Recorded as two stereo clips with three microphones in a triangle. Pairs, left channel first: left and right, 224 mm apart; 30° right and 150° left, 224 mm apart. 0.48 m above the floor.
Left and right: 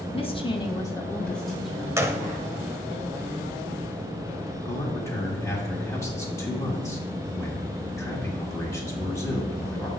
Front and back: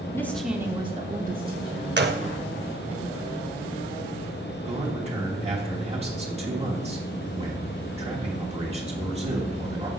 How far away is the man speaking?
About 1.3 m.